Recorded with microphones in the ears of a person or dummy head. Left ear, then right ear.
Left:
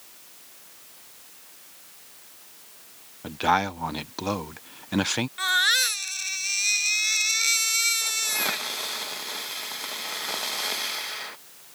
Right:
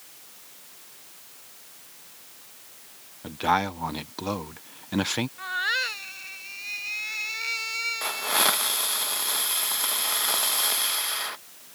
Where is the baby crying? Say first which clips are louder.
Left 7 dB; 80° left.